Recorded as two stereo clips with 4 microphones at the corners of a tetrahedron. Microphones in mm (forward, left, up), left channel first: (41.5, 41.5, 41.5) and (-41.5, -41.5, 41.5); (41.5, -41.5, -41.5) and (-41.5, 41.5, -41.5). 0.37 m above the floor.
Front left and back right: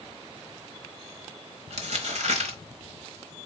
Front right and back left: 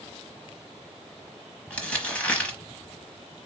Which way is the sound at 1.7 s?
120° right.